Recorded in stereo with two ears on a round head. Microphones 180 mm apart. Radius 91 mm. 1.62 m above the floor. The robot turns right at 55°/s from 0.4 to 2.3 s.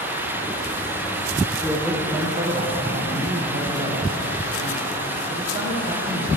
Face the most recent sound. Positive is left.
turn(degrees=-145)